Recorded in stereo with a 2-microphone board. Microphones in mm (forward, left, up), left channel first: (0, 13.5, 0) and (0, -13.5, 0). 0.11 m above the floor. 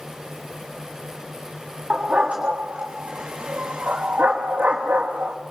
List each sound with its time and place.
1.9 s a dog barking: 40° right (ahead or behind), 4.5 m; by 5.4 s 80° right, 3.5 m